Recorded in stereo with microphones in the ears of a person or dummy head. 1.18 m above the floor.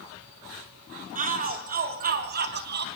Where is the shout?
40° right (ahead or behind), 3.5 m; by 2.9 s 55° right (ahead or behind), 2.5 m.